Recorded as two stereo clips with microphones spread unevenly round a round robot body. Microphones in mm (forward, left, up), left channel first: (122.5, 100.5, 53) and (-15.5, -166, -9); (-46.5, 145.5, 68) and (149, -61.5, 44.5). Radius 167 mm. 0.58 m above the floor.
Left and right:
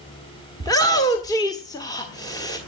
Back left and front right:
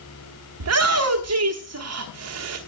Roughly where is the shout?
Ahead.